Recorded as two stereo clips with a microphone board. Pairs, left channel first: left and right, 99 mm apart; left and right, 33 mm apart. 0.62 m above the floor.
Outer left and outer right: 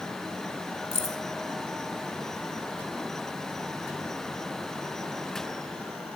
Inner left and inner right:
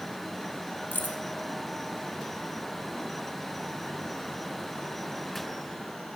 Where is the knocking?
I don't hear knocking.